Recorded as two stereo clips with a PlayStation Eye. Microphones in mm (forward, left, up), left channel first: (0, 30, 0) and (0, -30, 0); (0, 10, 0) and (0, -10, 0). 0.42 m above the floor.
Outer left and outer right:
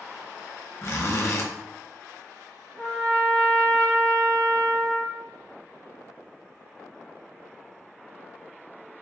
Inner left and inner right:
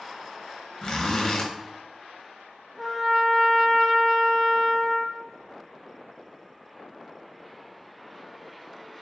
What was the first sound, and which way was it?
A zipper, 45° left (ahead or behind).